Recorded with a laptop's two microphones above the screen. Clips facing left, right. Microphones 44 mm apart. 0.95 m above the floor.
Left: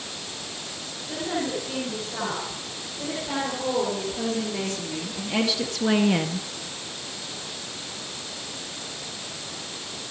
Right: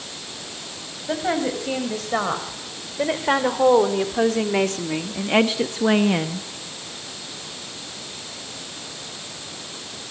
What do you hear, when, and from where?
1.1 s a woman speaking: 80° right, 7 m; by 6.5 s centre (ahead or behind), 1.6 m